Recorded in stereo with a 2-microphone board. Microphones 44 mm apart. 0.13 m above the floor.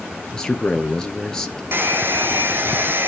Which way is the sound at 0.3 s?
15° left (ahead or behind).